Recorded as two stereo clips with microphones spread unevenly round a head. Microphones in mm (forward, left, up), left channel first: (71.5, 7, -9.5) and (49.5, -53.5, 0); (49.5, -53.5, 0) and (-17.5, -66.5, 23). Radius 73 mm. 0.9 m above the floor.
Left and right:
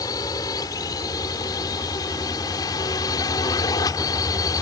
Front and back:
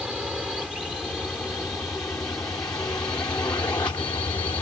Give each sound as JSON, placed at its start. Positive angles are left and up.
{"t": 0.0, "sound": "a drone", "azimuth_deg": 105}